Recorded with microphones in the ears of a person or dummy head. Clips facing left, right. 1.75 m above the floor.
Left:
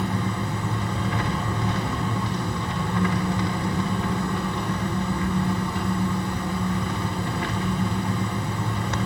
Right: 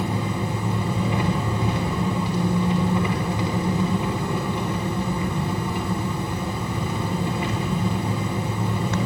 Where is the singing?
I don't hear singing.